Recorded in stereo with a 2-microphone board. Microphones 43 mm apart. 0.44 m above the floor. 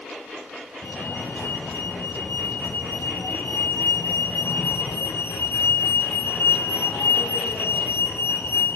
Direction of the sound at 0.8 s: 65° left (ahead or behind).